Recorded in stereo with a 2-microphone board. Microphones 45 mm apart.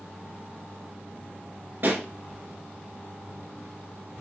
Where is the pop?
55° right (ahead or behind), 1.7 m.